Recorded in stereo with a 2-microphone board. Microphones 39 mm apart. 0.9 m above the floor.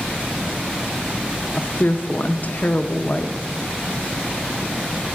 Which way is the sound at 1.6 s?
45° left (ahead or behind).